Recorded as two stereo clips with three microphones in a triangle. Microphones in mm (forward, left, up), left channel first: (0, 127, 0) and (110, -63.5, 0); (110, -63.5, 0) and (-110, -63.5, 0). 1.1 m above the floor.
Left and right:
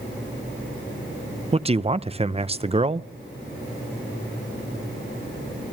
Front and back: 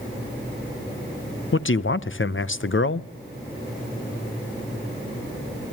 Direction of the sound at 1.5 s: Straight ahead.